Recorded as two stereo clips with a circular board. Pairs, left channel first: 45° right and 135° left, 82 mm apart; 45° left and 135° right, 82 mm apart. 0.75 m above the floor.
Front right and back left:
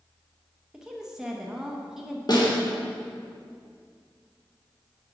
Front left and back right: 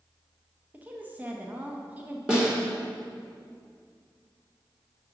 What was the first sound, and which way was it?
A woman speaking, 150° right.